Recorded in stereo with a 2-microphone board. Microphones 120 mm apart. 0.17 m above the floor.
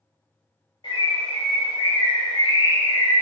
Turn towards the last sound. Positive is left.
turn(degrees=45)  # may be behind; listen again after turning